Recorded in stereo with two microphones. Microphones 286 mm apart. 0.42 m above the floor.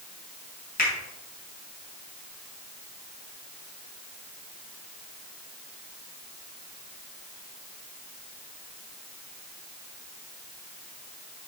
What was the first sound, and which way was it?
A finger snap, 30° left (ahead or behind).